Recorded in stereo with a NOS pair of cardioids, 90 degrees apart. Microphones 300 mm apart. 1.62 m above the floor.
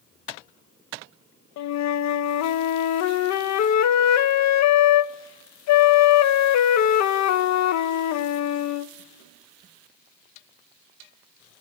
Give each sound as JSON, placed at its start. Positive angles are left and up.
{"t": 1.6, "sound": "a flute", "azimuth_deg": 65, "distance_m": 0.7}